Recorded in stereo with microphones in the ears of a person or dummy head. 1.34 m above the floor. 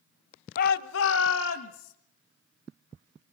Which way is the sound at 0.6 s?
55° left (ahead or behind).